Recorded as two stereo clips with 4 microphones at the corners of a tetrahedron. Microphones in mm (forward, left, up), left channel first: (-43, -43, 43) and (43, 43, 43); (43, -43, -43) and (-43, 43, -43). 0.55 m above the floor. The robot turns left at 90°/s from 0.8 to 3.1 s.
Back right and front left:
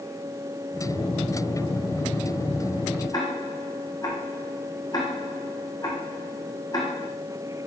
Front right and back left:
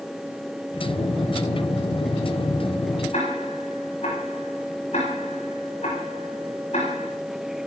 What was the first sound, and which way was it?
Ticking, 75° right.